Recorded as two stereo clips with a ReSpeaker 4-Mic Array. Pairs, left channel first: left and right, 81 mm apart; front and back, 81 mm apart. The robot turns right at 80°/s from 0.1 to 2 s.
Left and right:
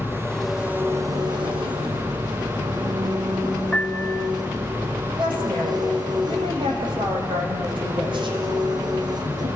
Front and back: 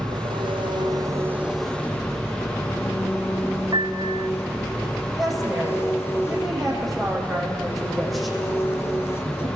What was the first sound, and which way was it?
An engine running, 150° left.